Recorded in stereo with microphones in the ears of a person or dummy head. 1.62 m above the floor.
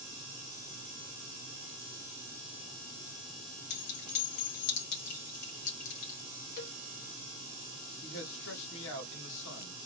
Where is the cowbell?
60° left (ahead or behind), 2 m.